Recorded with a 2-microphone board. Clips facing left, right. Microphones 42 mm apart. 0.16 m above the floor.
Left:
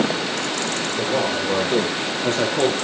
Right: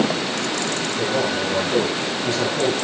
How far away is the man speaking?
About 5.5 m.